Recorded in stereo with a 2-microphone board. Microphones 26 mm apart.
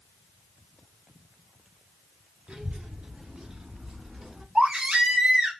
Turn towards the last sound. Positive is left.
turn(degrees=-45)  # may be behind; listen again after turning